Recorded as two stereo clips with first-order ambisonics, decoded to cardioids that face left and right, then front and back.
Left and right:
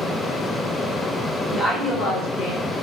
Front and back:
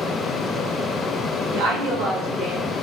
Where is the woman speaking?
170° right, 0.8 m; by 2.6 s 95° left, 1.0 m.